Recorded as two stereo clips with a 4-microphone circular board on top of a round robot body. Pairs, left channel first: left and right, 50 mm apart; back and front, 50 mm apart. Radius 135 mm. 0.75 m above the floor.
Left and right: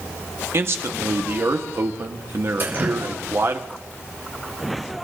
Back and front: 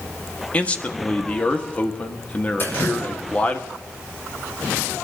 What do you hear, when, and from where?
0.5 s a man speaking: 120° right, 1.8 m
2.6 s dripping: 135° right, 5 m